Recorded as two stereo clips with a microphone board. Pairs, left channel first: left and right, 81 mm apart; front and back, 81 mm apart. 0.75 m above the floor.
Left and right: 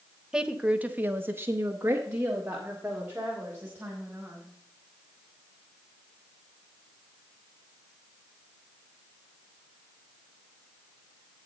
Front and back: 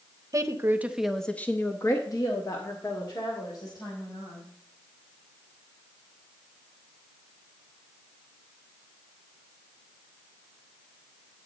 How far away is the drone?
I don't hear a drone.